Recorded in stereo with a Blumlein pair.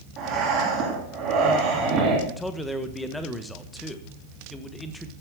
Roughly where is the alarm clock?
I don't hear an alarm clock.